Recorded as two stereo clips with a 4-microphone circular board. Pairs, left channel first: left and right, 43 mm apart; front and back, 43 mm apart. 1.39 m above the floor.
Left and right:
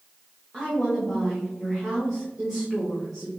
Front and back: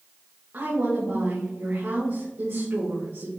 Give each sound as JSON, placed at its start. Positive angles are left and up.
{"t": 0.5, "sound": "a woman speaking", "azimuth_deg": -170, "distance_m": 2.5}